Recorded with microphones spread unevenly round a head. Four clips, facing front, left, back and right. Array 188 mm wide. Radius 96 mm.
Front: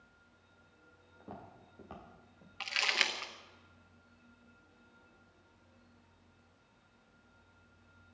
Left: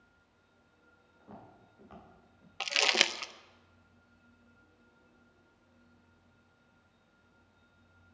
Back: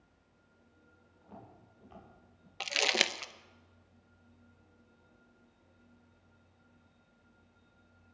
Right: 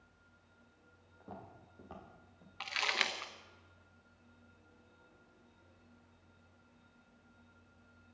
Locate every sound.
1.2 s footsteps: 25° right, 6.5 m
2.6 s crumpling: 135° left, 0.6 m